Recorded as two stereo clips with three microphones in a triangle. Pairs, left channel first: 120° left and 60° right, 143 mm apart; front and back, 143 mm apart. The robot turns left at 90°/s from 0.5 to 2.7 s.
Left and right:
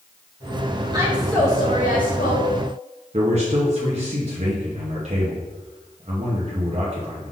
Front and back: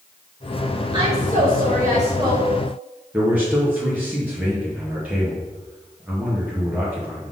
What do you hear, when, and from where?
0.9 s a woman speaking: 125° right, 1.6 m; by 2.5 s 100° left, 1.6 m
3.1 s a man speaking: 100° right, 0.9 m